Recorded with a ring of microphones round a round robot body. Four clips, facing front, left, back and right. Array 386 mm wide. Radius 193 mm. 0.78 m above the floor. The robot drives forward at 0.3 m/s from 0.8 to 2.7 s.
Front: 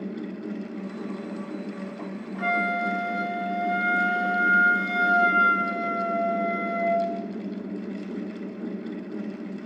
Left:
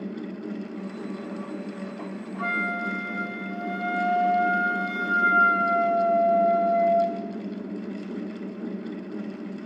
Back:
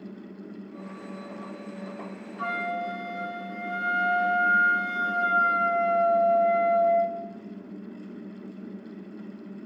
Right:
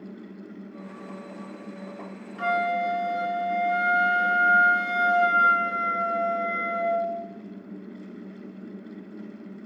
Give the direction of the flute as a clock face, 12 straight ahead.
1 o'clock.